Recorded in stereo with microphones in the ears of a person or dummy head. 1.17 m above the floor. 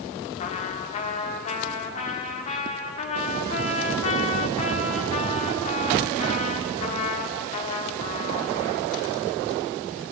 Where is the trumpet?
40° left (ahead or behind), 1.8 m.